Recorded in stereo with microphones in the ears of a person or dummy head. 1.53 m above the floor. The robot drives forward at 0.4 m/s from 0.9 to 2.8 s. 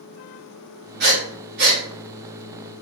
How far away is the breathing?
About 1.5 m.